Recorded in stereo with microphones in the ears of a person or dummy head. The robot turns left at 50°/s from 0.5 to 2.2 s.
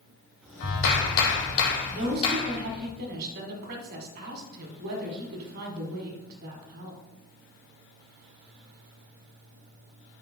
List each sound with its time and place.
0.6 s a clap: 120° left, 1.4 m; by 2.9 s 40° left, 1.4 m
1.9 s a woman speaking: 35° right (ahead or behind), 1.8 m; by 7.0 s 50° right (ahead or behind), 1.8 m